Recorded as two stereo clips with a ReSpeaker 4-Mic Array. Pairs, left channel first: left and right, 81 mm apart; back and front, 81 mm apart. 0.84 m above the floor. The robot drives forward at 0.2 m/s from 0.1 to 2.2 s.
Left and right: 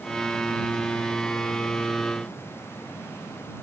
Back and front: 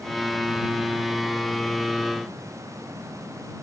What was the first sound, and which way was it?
Only background noise.